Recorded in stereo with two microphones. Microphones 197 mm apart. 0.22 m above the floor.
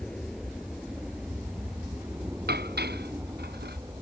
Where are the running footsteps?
I don't hear running footsteps.